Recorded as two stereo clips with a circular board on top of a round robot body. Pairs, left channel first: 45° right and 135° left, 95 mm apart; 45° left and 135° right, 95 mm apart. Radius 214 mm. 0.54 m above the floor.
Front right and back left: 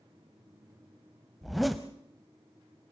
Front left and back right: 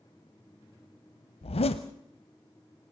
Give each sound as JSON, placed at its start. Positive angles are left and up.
{"t": 1.4, "sound": "a zipper", "azimuth_deg": 45, "distance_m": 0.6}